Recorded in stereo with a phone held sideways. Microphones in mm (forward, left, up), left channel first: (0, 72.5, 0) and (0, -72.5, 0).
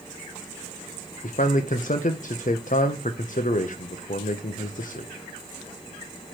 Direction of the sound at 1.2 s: 65° left (ahead or behind).